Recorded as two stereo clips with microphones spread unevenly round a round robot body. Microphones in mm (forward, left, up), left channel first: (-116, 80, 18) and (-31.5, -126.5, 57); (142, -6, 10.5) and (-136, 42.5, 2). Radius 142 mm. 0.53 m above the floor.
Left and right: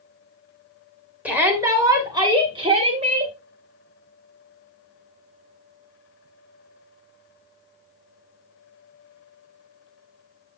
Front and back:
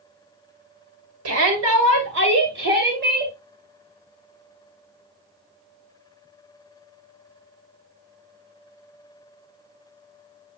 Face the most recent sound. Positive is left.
turn(degrees=-130)